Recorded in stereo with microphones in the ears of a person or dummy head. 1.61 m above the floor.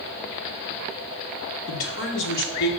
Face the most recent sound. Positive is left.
turn(degrees=60)  # may be behind; listen again after turning